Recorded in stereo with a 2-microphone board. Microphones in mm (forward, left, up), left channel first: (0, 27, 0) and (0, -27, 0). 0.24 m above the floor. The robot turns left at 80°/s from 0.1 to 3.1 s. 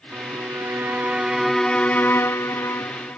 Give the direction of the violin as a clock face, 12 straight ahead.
2 o'clock.